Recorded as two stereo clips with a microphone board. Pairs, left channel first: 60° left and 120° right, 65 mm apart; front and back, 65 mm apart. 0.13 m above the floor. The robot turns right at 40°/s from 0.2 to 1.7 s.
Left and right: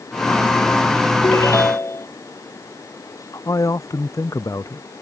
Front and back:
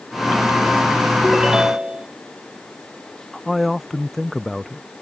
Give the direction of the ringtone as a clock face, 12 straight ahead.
9 o'clock.